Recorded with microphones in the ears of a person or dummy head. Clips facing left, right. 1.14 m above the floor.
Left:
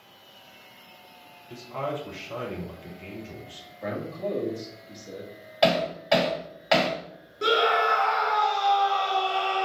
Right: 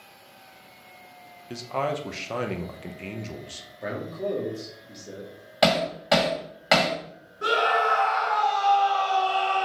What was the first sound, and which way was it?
A man speaking, 60° right (ahead or behind).